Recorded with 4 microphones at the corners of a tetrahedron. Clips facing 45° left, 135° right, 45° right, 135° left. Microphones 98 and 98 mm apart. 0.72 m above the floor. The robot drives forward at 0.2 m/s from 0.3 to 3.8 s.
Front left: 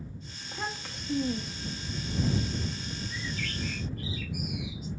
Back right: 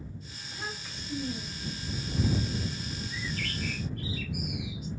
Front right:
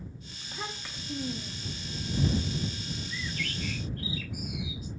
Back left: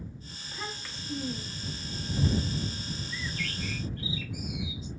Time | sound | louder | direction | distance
0.4 | a child speaking | front left 4 dB, front right 1 dB | 30° left | 0.8 m
3.1 | a bird | back right 1 dB, even | 160° right | 1.5 m